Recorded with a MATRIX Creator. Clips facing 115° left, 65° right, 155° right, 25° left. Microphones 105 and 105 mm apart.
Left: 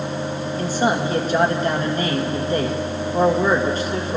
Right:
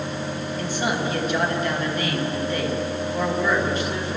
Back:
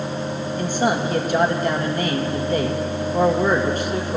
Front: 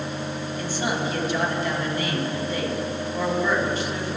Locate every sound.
0.6 s a man speaking: 165° left, 1.7 m